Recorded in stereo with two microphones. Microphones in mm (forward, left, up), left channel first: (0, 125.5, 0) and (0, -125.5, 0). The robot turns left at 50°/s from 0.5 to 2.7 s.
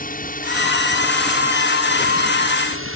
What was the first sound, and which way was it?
A drone, 40° left.